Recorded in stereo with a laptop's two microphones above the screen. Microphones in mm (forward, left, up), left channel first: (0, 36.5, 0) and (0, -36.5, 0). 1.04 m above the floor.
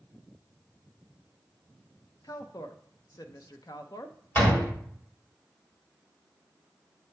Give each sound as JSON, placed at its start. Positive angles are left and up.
{"t": 2.2, "sound": "a woman speaking", "side_deg": 60, "distance_m": 0.5}
{"t": 4.3, "sound": "a door slam", "side_deg": 30, "distance_m": 2.5}